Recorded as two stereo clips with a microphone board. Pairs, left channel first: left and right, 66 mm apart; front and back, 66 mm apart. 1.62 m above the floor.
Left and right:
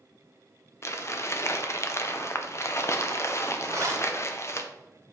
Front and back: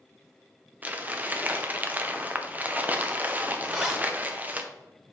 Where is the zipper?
100° right, 2 m.